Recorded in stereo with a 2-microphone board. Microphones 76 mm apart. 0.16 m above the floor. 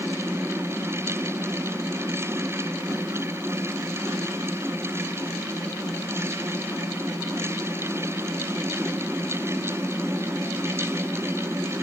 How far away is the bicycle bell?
No bicycle bell in this recording.